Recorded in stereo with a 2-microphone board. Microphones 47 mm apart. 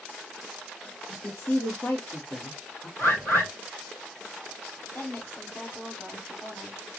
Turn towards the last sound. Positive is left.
turn(degrees=55)  # may be behind; listen again after turning